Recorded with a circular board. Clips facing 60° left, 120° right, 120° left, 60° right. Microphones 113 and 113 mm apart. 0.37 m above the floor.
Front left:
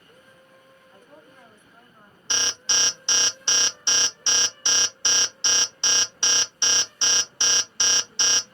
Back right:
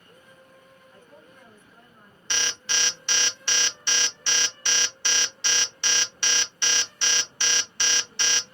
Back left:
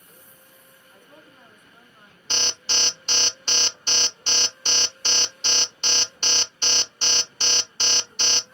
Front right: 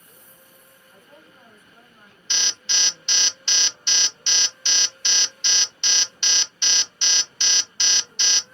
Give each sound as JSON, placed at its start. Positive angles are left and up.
{"t": 0.9, "sound": "a woman speaking", "azimuth_deg": 15, "distance_m": 1.1}
{"t": 2.3, "sound": "an alarm", "azimuth_deg": 120, "distance_m": 0.6}